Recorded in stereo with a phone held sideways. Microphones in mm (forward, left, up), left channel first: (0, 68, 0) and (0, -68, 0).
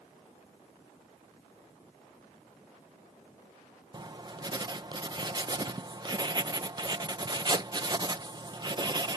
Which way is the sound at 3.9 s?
30° right (ahead or behind).